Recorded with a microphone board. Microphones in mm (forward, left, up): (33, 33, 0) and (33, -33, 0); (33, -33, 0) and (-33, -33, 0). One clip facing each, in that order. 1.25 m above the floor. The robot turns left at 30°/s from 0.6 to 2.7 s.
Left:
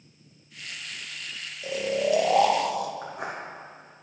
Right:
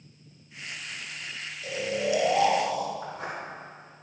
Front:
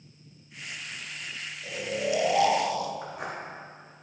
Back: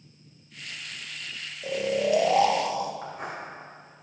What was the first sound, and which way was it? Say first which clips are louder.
Snoring: left 3 dB, back 5 dB; 150° left.